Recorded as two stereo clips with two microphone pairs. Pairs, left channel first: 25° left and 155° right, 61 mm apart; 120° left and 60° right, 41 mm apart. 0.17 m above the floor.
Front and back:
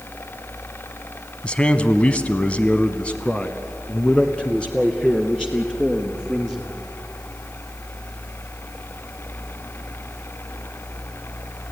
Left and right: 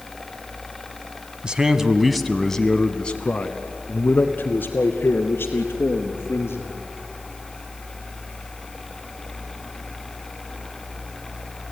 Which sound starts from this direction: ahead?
A man speaking, at 1.4 s.